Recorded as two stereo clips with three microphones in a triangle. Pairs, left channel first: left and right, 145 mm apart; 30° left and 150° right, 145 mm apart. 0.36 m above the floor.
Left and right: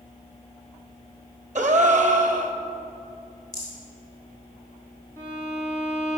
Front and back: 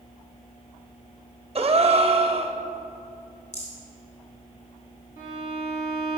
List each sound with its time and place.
1.6 s a gasp: 110° right, 0.5 m
3.5 s a rattle: 60° left, 3 m
5.2 s a violin: 20° left, 2.5 m